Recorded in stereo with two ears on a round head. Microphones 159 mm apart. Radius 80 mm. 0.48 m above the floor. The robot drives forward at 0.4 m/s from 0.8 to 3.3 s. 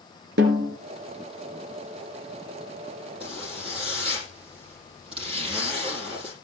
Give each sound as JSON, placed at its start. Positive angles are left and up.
{"t": 0.4, "sound": "a snare drum", "side_deg": -75, "distance_m": 4.0}
{"t": 3.2, "sound": "a zipper", "side_deg": -35, "distance_m": 7.5}